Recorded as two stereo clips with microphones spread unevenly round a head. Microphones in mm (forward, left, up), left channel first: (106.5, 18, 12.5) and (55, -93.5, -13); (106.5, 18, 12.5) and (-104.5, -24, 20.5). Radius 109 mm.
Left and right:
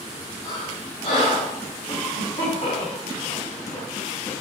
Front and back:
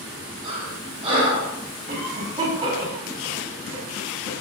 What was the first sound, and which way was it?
Breathing, 125° left.